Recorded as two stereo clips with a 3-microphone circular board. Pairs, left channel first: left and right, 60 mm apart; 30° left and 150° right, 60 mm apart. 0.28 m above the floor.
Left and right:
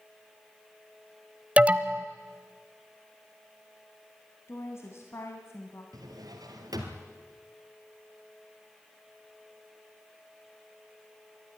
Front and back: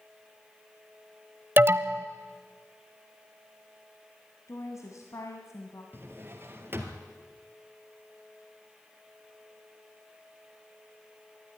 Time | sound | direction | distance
1.6 | an alarm | 145° right | 0.7 m
4.5 | a woman speaking | 50° left | 1.9 m
5.9 | a drawer | 95° right | 2 m